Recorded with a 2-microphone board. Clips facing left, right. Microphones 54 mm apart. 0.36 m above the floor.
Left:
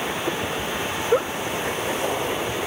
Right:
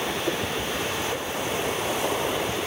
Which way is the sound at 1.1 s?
70° left (ahead or behind).